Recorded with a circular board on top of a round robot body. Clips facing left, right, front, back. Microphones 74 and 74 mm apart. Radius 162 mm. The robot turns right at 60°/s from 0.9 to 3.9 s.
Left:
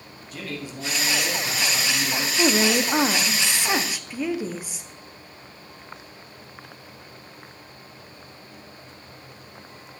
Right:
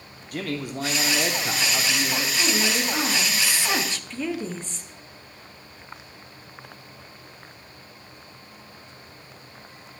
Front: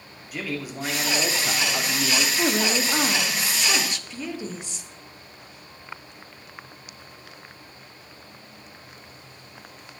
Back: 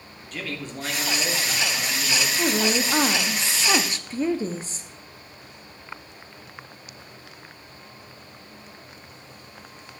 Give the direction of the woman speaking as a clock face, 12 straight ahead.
9 o'clock.